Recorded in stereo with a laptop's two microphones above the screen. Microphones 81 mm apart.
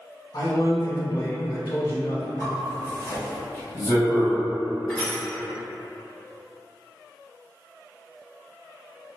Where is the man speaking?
50° left (ahead or behind), 0.5 m.